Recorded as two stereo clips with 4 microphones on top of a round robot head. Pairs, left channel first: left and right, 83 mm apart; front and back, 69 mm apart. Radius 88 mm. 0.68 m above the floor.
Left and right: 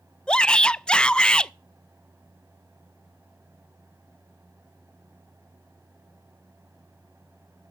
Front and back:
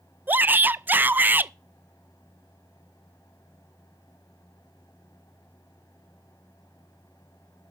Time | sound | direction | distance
0.3 | a shout | 160° left | 0.5 m